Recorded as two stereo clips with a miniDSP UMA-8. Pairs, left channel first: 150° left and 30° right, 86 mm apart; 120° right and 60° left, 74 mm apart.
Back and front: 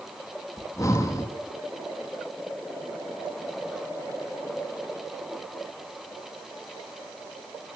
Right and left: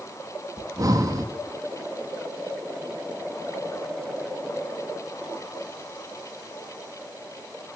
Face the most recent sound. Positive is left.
turn(degrees=95)